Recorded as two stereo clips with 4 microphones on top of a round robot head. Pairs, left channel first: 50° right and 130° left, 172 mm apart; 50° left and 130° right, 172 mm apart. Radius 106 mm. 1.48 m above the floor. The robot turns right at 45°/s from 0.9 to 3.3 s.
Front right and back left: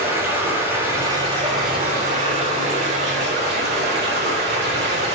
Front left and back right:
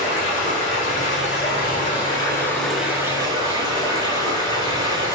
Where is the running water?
55° left, 3.5 m; by 5.1 s 165° left, 3.5 m.